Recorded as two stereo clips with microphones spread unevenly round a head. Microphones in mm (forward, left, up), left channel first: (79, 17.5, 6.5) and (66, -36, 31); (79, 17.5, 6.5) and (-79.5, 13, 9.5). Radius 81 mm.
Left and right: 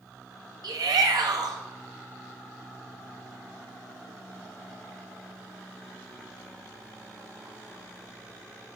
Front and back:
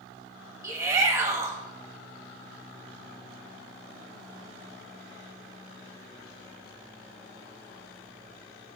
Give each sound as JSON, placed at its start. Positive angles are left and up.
{"t": 0.6, "sound": "a shout", "azimuth_deg": -105, "distance_m": 1.8}